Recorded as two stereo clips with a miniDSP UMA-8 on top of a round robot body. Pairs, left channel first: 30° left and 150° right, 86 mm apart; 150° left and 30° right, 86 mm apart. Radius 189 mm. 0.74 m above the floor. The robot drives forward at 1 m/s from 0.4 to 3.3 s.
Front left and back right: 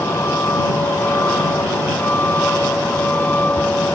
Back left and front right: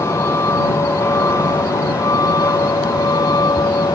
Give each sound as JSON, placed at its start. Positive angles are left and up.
{"t": 0.0, "sound": "a vehicle", "azimuth_deg": 90}